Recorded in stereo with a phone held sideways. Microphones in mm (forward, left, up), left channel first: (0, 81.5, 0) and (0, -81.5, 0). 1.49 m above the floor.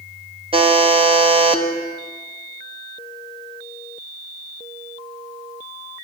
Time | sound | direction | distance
0.5 | a buzzer | 35° right (ahead or behind) | 1.0 m